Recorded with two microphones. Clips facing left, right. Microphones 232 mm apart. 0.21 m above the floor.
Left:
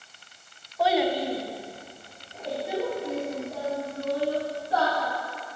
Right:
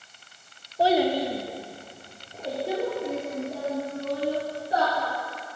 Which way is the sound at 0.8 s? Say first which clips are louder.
Right 2 dB; 30° right (ahead or behind).